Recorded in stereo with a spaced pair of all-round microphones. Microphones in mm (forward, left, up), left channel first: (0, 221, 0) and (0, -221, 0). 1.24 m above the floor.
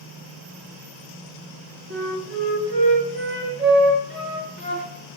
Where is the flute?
25° right (ahead or behind), 0.7 m.